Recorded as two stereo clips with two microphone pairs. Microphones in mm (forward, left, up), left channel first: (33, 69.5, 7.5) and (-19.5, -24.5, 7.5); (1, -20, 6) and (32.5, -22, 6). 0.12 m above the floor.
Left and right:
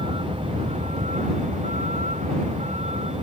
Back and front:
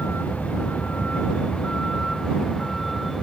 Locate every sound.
0.0 s a vehicle: 155° right; by 3.2 s 95° right